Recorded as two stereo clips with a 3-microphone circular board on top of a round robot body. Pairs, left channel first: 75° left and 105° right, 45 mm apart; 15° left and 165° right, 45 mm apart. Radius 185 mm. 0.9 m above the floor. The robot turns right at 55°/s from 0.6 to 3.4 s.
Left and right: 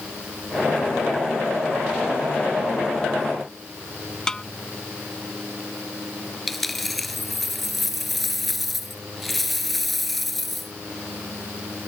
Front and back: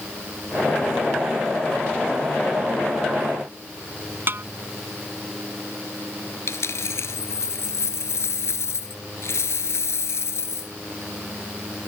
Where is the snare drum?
155° left.